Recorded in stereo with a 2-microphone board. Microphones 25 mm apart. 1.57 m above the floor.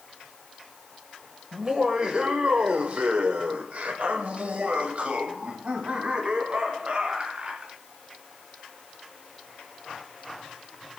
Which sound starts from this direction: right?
Laughter, at 1.5 s.